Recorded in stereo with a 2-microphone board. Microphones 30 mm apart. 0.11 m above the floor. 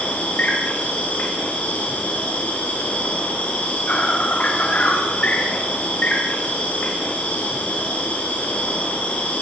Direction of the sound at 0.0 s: 55° left (ahead or behind).